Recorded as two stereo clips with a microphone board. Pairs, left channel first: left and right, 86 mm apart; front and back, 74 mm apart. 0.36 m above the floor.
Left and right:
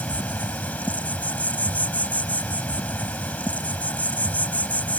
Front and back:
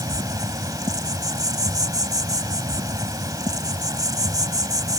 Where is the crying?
No crying in this recording.